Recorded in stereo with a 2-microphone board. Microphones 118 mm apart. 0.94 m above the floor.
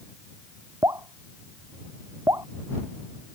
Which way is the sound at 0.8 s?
30° right (ahead or behind).